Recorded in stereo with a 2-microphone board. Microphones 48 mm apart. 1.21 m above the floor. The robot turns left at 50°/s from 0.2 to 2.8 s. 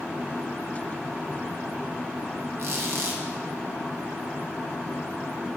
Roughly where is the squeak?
Right.